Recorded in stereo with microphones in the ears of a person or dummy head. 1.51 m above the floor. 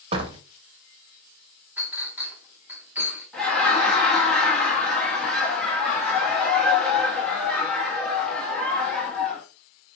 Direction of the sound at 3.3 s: 5° left (ahead or behind).